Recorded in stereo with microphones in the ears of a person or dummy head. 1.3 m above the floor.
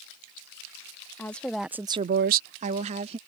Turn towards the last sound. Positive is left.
turn(degrees=-25)  # may be behind; listen again after turning